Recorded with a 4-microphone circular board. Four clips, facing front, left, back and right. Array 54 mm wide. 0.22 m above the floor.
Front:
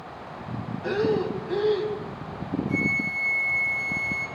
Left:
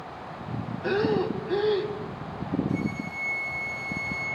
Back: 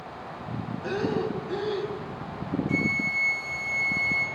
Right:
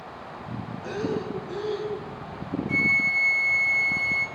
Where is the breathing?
75° left, 1.8 m.